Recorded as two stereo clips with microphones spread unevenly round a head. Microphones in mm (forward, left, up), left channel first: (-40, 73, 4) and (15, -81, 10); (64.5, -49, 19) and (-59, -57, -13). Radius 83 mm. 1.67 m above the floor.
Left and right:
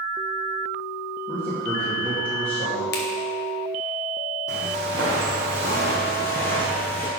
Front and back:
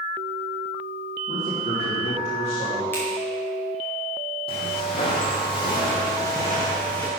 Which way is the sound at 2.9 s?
75° left.